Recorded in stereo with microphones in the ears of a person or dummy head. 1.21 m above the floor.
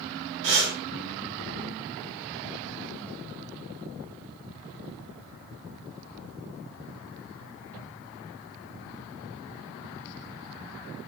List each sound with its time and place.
0.4 s breathing: 65° right (ahead or behind), 3 m